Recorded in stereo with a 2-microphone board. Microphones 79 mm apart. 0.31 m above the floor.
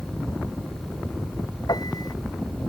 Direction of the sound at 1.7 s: 60° left (ahead or behind).